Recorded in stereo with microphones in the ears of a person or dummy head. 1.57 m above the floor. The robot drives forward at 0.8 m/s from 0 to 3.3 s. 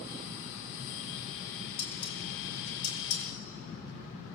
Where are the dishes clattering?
75° left (ahead or behind), 5 m; by 3.2 s 85° left, 4.5 m.